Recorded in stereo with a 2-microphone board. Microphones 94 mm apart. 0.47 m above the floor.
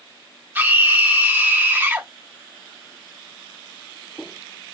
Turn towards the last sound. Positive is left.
turn(degrees=-20)  # may be behind; listen again after turning